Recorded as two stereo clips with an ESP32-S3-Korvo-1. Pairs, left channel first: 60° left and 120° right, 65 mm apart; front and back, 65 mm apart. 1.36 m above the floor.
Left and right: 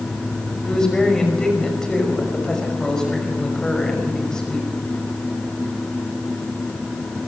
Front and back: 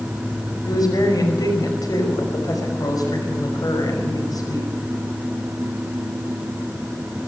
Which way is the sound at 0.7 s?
20° right.